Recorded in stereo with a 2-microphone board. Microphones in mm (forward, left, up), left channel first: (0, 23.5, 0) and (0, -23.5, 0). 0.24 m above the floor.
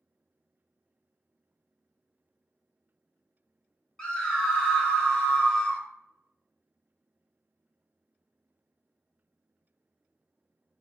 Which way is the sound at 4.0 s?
20° left (ahead or behind).